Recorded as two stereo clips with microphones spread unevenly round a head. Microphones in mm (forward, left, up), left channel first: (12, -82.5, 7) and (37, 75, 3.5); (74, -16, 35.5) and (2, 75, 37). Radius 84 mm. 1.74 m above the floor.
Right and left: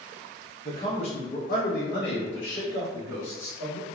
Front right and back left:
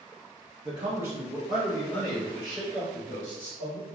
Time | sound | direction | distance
0.7 | a man speaking | 170° right | 1.2 m